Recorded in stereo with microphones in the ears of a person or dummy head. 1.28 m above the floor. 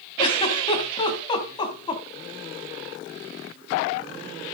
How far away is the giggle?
About 2 m.